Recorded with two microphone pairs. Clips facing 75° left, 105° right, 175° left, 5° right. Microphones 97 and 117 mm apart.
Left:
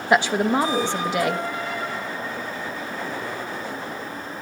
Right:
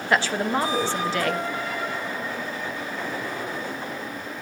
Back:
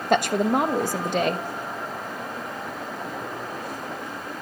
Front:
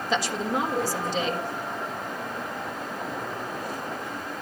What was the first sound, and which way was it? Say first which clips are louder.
A woman speaking: left 4 dB, back 7 dB; 145° left.